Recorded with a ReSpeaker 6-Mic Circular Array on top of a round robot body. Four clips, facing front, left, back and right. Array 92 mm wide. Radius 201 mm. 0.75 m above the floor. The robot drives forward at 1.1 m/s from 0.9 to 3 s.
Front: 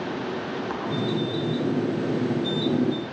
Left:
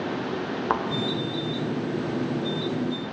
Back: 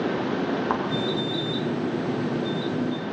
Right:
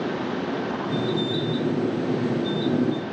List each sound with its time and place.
0.7 s a thud: 115° left, 0.7 m